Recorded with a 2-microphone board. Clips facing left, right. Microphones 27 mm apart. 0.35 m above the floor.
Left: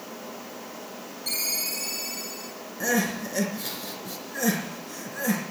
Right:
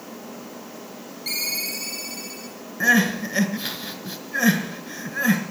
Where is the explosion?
I don't hear an explosion.